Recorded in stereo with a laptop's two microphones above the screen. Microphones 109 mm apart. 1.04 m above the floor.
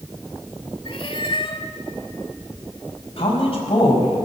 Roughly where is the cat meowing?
Left.